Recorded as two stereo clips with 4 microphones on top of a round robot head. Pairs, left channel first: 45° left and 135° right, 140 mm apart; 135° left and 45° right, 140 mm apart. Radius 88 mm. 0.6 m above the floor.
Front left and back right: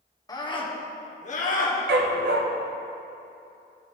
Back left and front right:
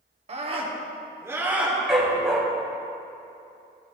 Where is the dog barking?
130° right, 1.0 m.